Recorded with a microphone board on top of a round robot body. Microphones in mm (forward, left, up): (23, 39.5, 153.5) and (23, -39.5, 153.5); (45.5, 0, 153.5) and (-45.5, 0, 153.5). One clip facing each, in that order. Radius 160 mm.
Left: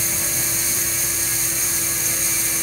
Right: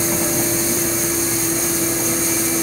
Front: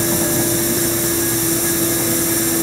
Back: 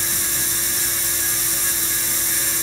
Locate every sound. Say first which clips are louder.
0.0 s a vehicle: right 10 dB, front 13 dB; 35° right